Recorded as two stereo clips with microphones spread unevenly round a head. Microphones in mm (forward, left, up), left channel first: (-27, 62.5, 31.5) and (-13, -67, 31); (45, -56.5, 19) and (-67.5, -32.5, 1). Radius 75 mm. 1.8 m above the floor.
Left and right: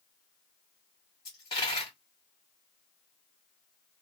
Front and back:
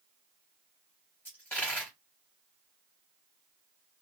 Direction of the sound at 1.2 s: 45° left.